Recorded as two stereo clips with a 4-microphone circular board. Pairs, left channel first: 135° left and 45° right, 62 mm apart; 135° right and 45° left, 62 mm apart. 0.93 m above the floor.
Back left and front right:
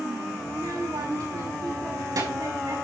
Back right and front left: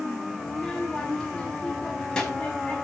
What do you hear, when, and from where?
0.5 s a child speaking: 55° right, 6 m